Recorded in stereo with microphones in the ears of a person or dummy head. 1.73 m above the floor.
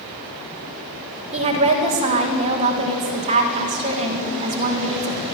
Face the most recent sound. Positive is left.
turn(degrees=-30)  # may be behind; listen again after turning